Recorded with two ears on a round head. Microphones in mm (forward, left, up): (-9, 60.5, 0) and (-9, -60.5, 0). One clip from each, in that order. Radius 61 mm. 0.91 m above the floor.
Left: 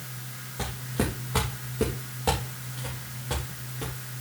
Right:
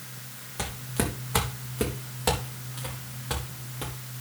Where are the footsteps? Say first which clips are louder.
Even; 65° right (ahead or behind), 3 m; by 3.9 s 40° right (ahead or behind), 5 m.